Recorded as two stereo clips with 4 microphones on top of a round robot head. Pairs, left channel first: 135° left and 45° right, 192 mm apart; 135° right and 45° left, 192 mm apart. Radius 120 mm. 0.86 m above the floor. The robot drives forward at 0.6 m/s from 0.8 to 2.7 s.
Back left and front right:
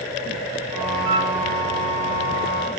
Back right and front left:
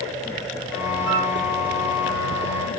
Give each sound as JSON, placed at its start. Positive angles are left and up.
{"t": 1.1, "sound": "a flute", "azimuth_deg": -30, "distance_m": 6.0}